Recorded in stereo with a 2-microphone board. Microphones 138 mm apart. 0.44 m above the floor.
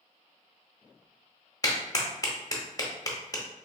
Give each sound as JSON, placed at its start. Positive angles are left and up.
{"t": 1.6, "sound": "a clap", "side_deg": 25, "distance_m": 0.7}